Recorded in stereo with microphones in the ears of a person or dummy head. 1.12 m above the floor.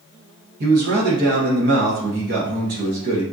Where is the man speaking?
50° right (ahead or behind), 1.4 m.